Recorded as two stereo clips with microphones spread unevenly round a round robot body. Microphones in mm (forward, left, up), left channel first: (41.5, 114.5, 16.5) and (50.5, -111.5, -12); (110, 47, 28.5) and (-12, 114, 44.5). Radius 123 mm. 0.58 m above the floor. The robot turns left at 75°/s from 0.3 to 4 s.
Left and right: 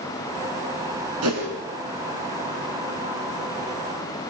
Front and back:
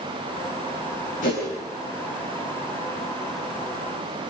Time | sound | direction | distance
1.2 | a whoosh | 75° right | 6.5 m